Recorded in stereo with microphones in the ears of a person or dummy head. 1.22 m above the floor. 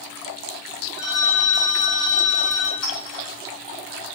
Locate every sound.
1.0 s a phone ringing: 35° left (ahead or behind), 2 m
2.8 s a clink: 45° left (ahead or behind), 4 m